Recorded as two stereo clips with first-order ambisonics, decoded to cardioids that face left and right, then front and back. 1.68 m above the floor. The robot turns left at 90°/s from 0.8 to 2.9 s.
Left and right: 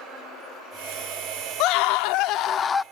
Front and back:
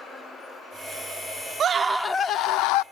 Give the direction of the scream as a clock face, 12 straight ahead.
8 o'clock.